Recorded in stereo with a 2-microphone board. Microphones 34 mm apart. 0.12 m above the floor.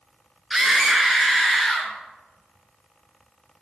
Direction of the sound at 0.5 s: 15° right (ahead or behind).